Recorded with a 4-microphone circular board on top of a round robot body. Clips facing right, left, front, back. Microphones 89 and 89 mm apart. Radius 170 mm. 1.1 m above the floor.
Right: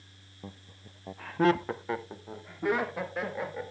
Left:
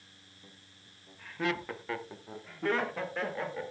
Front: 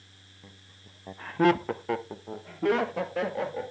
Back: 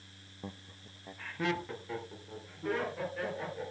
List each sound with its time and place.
0.4 s laughter: 125° right, 0.6 m; by 3.7 s 5° right, 2.5 m